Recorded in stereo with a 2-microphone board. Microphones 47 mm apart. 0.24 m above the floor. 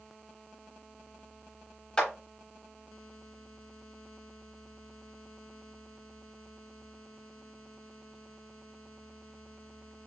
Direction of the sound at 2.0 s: 20° left (ahead or behind).